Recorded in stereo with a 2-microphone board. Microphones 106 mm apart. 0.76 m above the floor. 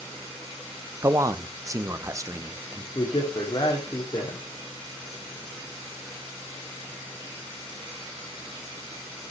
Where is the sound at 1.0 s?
30° right (ahead or behind), 0.6 m.